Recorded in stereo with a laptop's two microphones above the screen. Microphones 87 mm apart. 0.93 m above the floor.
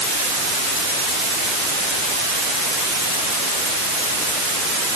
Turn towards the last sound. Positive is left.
No sound to turn to.